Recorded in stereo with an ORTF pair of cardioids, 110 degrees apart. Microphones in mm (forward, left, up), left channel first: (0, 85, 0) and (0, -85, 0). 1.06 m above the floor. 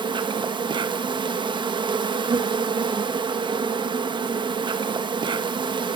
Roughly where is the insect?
Ahead right.